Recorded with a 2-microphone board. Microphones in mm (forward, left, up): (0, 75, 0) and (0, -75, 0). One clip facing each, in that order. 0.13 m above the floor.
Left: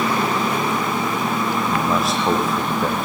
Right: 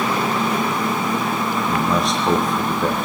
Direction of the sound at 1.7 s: Centre (ahead or behind).